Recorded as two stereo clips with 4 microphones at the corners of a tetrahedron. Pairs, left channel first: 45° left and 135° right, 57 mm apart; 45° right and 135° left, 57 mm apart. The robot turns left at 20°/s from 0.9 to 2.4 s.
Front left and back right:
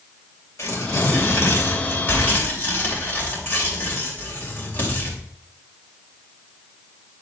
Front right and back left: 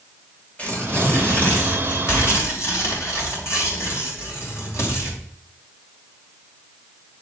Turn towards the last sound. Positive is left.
turn(degrees=-15)